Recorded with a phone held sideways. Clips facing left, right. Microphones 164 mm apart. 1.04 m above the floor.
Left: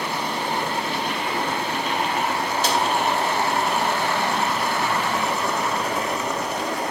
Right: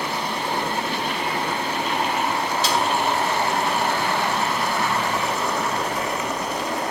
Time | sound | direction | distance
2.6 | a snare drum | 55° left (ahead or behind) | 2 m